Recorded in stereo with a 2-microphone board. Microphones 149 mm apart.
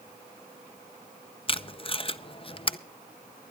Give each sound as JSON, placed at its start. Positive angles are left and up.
{"t": 1.5, "sound": "tape being pulled", "side_deg": 35, "distance_m": 0.5}